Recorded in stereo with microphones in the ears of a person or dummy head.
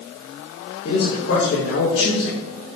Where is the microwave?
I don't hear a microwave.